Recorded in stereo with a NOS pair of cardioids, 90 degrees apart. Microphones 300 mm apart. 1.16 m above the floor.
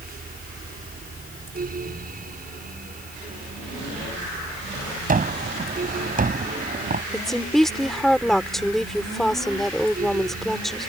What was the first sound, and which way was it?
A fan, 30° right.